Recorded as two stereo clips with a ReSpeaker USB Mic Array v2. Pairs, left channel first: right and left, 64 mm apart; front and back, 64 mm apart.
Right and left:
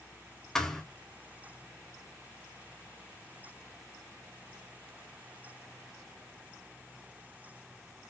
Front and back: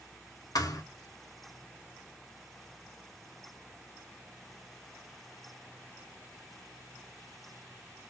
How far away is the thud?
About 0.5 m.